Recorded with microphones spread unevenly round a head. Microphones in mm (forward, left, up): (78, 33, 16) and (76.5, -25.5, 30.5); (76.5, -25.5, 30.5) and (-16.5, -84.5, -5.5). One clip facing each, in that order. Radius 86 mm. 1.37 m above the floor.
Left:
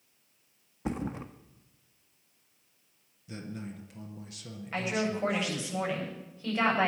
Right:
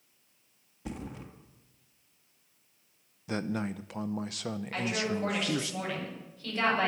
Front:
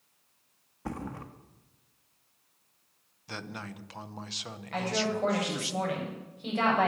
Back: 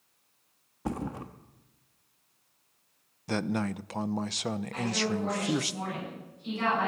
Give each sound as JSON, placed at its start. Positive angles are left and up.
{"t": 0.8, "sound": "a thud", "azimuth_deg": 130, "distance_m": 0.8}
{"t": 3.3, "sound": "a man speaking", "azimuth_deg": -105, "distance_m": 0.6}
{"t": 4.7, "sound": "a woman speaking", "azimuth_deg": 25, "distance_m": 8.5}